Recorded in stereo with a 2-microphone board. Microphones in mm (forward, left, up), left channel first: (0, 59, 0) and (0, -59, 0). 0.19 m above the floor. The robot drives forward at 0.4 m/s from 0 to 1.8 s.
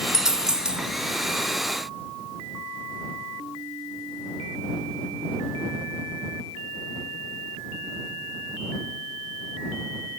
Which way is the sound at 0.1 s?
5° right (ahead or behind).